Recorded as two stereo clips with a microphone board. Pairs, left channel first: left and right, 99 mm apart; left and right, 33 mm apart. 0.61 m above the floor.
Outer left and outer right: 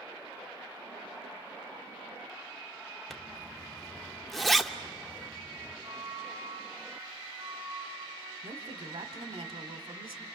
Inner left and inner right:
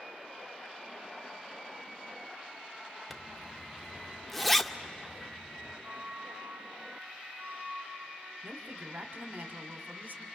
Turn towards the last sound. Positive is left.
turn(degrees=-65)  # may be behind; listen again after turning